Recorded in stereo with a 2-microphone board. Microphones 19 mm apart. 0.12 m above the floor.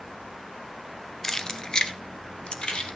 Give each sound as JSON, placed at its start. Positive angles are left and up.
{"t": 1.2, "sound": "keys jangling", "side_deg": 25, "distance_m": 0.8}